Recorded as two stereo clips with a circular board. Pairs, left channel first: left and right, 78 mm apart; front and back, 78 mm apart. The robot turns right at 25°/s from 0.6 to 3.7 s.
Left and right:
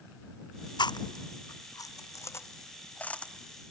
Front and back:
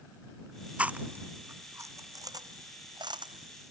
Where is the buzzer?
No buzzer in this recording.